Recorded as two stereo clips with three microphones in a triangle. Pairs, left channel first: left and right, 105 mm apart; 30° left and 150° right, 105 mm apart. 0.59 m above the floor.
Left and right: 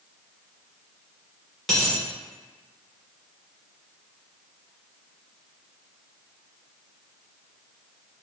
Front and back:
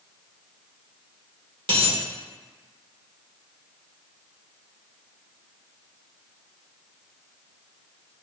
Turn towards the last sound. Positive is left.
turn(degrees=180)